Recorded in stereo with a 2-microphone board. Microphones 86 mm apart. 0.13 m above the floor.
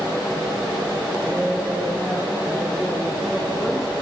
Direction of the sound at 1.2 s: 20° right (ahead or behind).